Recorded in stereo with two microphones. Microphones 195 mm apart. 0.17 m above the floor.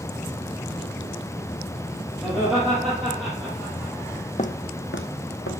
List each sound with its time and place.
2.2 s laughter: 5° right (ahead or behind), 4.5 m
4.4 s footsteps: 35° left (ahead or behind), 0.6 m; by 5.5 s 80° left, 1.5 m